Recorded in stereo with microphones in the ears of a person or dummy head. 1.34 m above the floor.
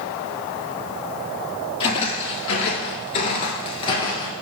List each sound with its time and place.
1.8 s footsteps: 30° left (ahead or behind), 2 m; by 4.3 s 20° left (ahead or behind), 1.7 m